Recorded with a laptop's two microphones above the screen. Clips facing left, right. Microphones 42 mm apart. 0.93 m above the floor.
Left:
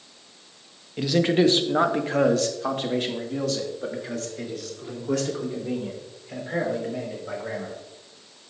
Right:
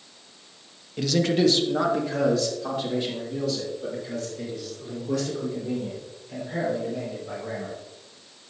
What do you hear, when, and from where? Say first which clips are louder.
1.0 s a man speaking: left 2 dB; 15° left (ahead or behind), 1.1 m; by 7.7 s 80° left, 5.5 m